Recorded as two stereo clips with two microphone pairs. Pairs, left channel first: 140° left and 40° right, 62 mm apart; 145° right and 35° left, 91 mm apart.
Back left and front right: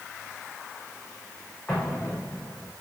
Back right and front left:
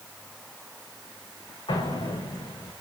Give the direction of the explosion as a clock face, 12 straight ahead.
5 o'clock.